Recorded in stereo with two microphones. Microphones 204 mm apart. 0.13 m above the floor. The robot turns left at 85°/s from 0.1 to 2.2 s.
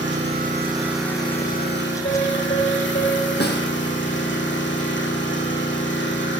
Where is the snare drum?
60° left (ahead or behind), 2.5 m.